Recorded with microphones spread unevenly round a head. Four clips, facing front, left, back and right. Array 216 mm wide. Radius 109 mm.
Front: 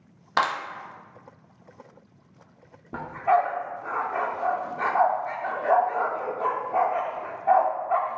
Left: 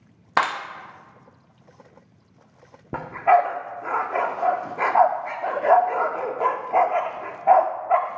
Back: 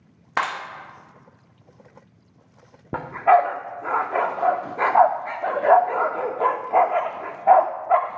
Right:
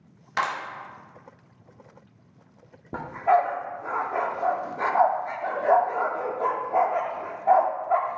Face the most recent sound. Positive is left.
turn(degrees=160)